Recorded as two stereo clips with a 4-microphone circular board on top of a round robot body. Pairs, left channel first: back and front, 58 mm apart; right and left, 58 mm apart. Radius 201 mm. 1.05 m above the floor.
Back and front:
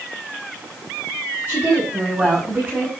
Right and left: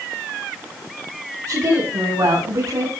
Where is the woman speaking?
65° left, 9.5 m.